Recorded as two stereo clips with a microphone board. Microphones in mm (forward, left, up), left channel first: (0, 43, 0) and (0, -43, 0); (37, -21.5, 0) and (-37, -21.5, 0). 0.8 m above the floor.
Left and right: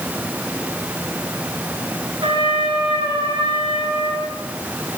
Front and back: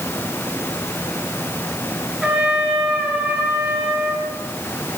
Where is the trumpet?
100° right, 9 m.